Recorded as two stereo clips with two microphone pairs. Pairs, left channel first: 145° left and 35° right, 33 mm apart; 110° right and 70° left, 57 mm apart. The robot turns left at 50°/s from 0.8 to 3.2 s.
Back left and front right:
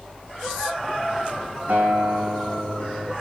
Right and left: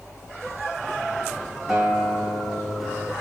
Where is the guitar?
15° right, 3 m; by 3.1 s 85° right, 3 m.